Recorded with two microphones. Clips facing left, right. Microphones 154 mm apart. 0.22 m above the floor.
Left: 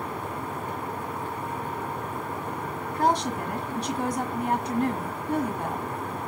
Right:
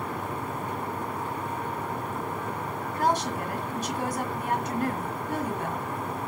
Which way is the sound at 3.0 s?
15° left (ahead or behind).